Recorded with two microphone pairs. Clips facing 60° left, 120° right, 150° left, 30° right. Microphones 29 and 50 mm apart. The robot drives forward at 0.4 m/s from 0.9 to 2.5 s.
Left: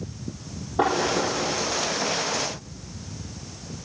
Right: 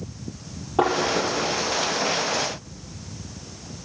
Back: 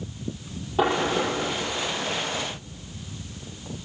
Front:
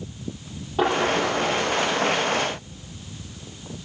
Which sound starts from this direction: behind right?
Knocking, at 0.8 s.